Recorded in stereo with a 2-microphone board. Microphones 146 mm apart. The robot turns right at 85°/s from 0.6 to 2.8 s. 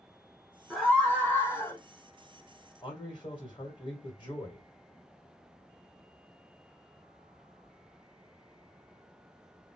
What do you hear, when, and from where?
0.7 s a scream: centre (ahead or behind), 1.5 m; by 1.8 s 20° left (ahead or behind), 1.5 m
2.8 s a man speaking: 30° left (ahead or behind), 1.7 m